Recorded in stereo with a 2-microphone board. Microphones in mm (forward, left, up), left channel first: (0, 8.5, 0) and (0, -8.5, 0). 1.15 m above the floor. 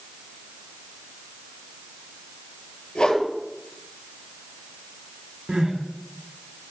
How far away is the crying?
About 4 m.